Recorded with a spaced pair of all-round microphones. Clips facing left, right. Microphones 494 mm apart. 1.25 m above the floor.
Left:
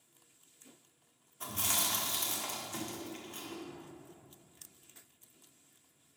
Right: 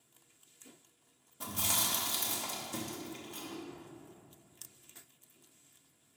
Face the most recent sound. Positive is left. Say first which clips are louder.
# even
turn(degrees=35)  # may be behind; listen again after turning